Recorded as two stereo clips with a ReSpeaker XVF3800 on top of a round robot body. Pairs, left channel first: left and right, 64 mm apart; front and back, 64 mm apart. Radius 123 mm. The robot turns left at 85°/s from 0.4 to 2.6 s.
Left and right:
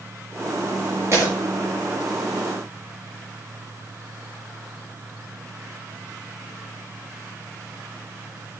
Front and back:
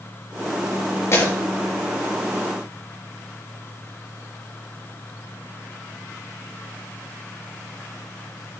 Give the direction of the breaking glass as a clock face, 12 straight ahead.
1 o'clock.